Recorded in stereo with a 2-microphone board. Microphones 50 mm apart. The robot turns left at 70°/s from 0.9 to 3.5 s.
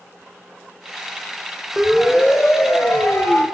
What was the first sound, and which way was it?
A siren, 5° right (ahead or behind).